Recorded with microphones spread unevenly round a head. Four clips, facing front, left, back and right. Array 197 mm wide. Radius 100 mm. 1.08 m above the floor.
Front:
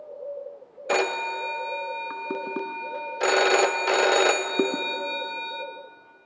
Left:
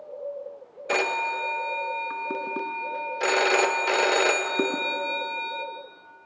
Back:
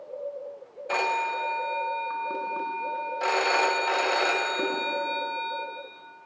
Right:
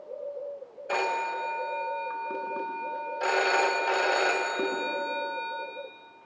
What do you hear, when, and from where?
0.9 s a phone ringing: 30° left, 0.7 m